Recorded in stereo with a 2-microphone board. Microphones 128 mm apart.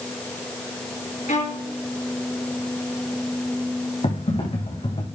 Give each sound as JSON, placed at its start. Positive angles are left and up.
{"t": 1.3, "sound": "a violin", "side_deg": 70, "distance_m": 4.5}
{"t": 4.0, "sound": "typing on a keyboard", "side_deg": 55, "distance_m": 6.0}